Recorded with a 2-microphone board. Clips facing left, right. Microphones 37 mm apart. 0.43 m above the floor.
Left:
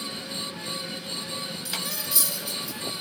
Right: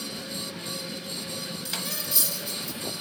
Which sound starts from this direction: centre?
Cutlery clinking, at 1.6 s.